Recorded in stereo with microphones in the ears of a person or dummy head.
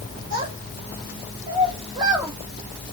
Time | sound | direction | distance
0.3 | a child speaking | 55° right (ahead or behind) | 2 m